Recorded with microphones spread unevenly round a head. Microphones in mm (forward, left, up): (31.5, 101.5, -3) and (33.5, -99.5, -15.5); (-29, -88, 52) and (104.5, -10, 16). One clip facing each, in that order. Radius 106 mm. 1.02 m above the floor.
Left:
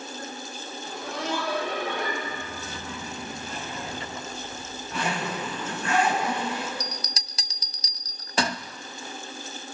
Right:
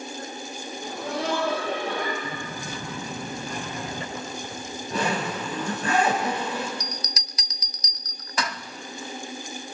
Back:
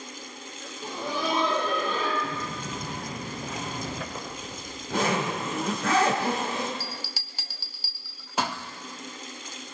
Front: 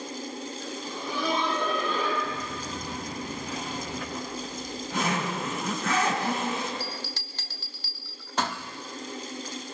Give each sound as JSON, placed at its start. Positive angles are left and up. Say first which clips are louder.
{"t": 0.8, "sound": "laughter", "louder": "right 4 dB, back 2 dB", "azimuth_deg": -145, "distance_m": 5.0}
{"t": 2.2, "sound": "footsteps", "louder": "right 2 dB, even", "azimuth_deg": -145, "distance_m": 7.5}
{"t": 4.2, "sound": "a zipper", "louder": "right 3 dB, front 3 dB", "azimuth_deg": -145, "distance_m": 5.0}
{"t": 6.8, "sound": "a bell", "louder": "even, front 2 dB", "azimuth_deg": 140, "distance_m": 0.6}